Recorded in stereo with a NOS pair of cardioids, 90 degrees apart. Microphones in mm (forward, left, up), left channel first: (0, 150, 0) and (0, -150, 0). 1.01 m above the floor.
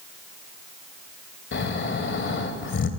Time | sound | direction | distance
1.5 | snoring | 40° left | 2.5 m